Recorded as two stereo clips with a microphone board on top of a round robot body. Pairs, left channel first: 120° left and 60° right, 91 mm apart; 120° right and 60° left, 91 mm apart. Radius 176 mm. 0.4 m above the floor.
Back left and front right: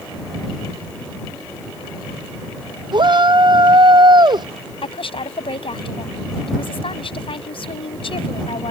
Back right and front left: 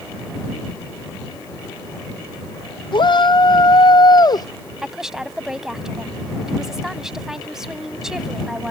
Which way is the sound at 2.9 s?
90° right.